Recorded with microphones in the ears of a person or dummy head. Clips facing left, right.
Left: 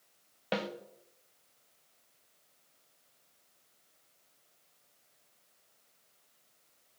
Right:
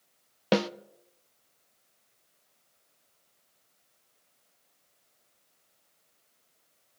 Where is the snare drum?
60° right (ahead or behind), 0.6 m.